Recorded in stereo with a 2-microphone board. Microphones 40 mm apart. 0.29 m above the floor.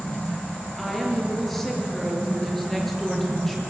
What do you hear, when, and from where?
0.8 s a woman speaking: 5° left (ahead or behind), 5.5 m